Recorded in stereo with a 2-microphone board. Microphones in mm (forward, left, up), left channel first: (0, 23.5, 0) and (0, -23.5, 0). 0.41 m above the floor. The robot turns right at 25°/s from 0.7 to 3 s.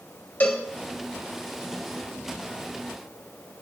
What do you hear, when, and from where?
0.4 s a cowbell: 35° left (ahead or behind), 1.2 m